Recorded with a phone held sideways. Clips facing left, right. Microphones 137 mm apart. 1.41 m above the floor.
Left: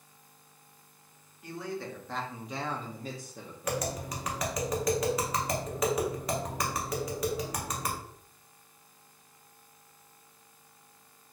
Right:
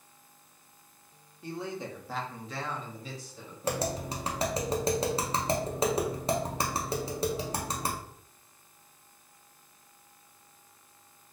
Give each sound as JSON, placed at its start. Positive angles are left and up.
{"t": 1.4, "sound": "a man speaking", "side_deg": -30, "distance_m": 0.8}
{"t": 3.6, "sound": "tapping", "side_deg": -30, "distance_m": 0.7}